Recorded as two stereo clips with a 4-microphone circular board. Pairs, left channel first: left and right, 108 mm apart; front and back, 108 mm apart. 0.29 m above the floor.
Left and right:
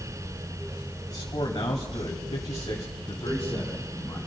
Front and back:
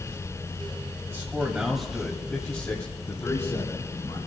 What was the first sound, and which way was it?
A man speaking, 125° left.